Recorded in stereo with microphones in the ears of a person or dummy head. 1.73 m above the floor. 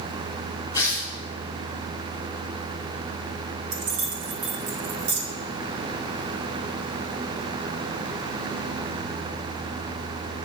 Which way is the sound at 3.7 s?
65° right (ahead or behind).